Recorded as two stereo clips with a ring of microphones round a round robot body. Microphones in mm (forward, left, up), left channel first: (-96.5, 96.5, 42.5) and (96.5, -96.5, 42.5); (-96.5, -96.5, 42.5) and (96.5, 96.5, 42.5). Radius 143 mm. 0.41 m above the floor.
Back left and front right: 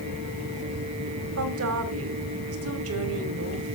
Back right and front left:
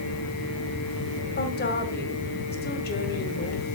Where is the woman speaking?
80° right, 2 m.